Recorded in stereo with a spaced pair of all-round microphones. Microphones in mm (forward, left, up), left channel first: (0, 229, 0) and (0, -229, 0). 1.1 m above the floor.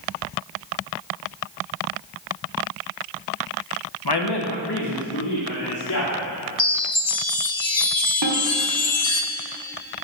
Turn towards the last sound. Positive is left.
turn(degrees=-60)  # may be behind; listen again after turning